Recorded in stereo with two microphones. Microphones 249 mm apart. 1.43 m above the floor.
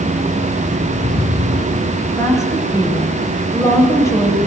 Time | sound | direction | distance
2.1 | a woman speaking | 10° left (ahead or behind) | 6.5 m